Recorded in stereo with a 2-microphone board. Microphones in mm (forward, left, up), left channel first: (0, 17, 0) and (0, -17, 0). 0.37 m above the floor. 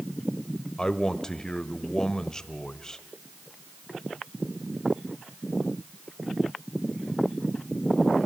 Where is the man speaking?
20° left (ahead or behind), 1.1 m.